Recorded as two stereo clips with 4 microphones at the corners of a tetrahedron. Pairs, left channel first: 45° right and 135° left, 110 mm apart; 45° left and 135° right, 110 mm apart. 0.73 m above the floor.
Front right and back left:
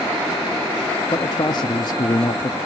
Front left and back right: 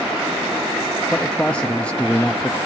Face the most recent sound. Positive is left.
turn(degrees=-30)